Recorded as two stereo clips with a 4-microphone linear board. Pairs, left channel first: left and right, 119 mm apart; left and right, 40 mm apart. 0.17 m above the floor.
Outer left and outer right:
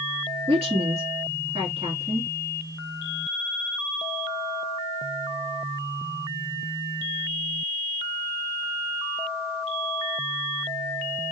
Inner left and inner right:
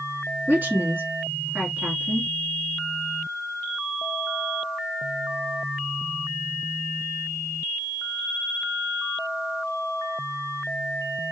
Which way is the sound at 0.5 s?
55° right (ahead or behind).